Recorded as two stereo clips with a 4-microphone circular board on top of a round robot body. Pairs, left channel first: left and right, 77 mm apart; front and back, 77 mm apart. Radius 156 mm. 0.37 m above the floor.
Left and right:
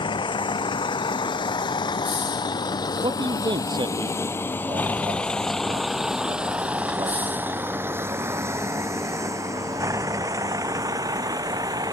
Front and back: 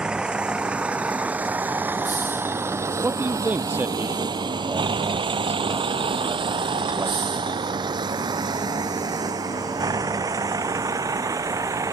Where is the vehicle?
100° left; by 11.9 s 130° right.